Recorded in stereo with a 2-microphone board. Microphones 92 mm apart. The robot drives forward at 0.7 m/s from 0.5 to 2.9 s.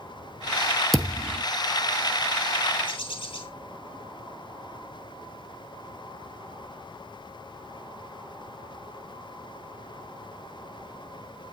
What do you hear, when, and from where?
0.9 s a thud: centre (ahead or behind), 1.7 m
2.9 s a bird: 65° left (ahead or behind), 3 m